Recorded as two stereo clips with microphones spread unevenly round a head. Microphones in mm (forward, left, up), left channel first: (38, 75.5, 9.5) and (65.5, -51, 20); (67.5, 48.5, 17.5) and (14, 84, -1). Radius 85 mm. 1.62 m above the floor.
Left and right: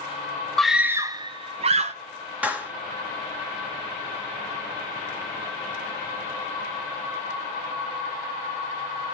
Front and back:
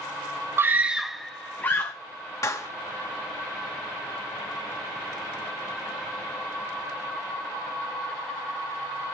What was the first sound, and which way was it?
A scream, 160° right.